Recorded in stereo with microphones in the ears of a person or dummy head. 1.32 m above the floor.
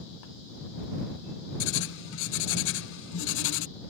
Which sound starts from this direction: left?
Writing, at 1.6 s.